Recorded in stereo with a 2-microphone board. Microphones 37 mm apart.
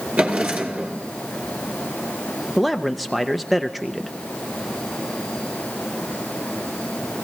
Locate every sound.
0.2 s a drawer: 45° right (ahead or behind), 3.5 m
2.6 s a man speaking: centre (ahead or behind), 0.5 m